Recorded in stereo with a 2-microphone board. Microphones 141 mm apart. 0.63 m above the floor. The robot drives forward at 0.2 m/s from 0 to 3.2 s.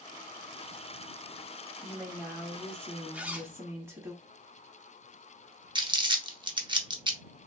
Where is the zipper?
10° right (ahead or behind), 0.8 m.